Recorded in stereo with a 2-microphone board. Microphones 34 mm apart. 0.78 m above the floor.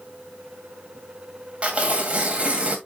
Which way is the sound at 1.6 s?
35° right (ahead or behind).